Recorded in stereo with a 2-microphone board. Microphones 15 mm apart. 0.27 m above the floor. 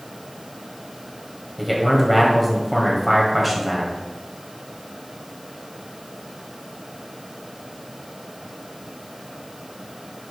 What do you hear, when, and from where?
1.6 s a man speaking: 5° right (ahead or behind), 1.7 m